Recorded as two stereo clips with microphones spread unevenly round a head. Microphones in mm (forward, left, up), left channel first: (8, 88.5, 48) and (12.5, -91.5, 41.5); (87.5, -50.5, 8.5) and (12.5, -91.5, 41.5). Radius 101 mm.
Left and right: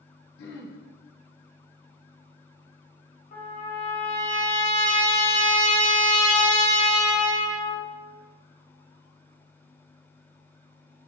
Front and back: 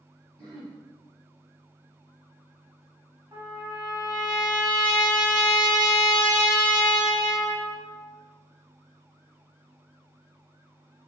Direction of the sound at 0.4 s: 125° left.